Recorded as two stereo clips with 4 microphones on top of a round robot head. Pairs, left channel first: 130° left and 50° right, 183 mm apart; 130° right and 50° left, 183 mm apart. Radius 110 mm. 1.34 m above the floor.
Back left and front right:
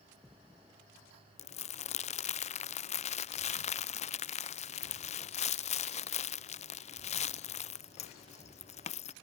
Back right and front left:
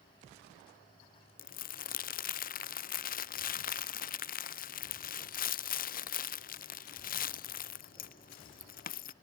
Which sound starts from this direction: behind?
Crumpling, at 1.4 s.